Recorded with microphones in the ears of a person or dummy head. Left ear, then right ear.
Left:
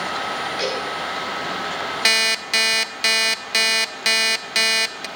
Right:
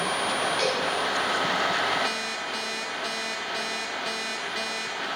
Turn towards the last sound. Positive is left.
turn(degrees=60)  # may be behind; listen again after turning